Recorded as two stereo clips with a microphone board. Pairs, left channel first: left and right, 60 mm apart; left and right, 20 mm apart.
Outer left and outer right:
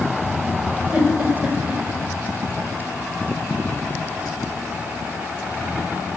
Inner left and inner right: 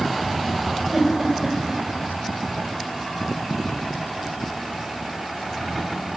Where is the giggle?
30° right (ahead or behind), 1.3 m.